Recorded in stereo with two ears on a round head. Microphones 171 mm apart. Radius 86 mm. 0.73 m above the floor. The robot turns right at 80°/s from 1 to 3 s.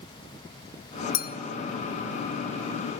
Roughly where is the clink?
Left.